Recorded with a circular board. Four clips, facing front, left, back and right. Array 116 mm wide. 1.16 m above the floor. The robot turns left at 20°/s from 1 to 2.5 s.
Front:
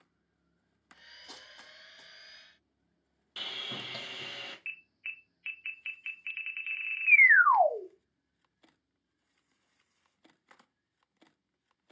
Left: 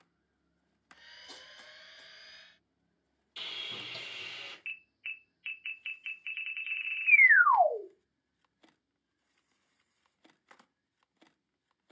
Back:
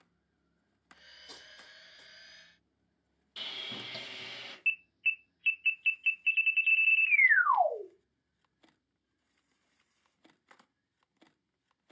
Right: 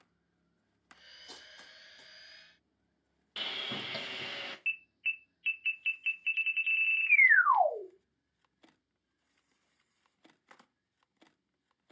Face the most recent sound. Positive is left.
turn(degrees=25)